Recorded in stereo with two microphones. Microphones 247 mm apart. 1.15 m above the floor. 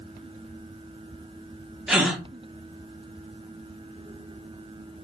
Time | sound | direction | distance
1.9 | a gasp | centre (ahead or behind) | 0.7 m